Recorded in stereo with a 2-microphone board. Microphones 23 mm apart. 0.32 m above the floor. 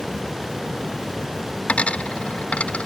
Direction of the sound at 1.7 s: 85° left.